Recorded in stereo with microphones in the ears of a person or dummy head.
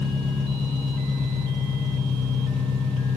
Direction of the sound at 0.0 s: 10° left (ahead or behind).